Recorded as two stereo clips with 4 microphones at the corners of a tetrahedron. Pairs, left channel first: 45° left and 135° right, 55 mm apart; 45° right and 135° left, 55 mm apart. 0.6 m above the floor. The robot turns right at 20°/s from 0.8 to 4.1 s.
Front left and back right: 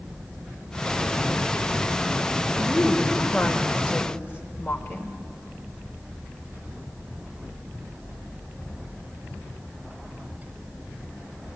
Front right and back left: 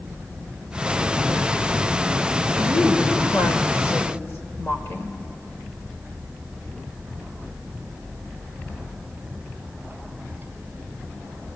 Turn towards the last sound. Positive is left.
turn(degrees=-5)